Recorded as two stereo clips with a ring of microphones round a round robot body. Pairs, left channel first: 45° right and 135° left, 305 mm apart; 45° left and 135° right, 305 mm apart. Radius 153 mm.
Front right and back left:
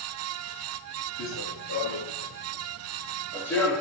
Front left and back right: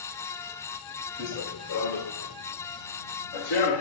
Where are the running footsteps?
5° left, 2.5 m; by 3.8 s 40° left, 3.5 m.